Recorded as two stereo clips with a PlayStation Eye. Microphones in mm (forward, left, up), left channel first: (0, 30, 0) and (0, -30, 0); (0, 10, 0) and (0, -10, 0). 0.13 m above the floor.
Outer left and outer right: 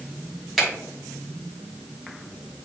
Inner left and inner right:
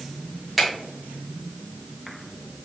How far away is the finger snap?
About 1.9 m.